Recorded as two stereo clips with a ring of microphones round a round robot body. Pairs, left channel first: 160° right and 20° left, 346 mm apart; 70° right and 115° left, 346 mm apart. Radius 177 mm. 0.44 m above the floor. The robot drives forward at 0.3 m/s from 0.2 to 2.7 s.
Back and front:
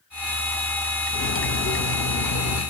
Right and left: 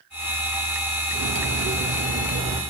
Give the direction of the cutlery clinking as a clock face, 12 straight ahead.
7 o'clock.